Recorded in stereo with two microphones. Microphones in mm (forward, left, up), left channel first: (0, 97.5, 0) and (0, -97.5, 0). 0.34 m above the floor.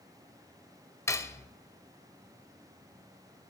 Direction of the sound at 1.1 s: 15° left (ahead or behind).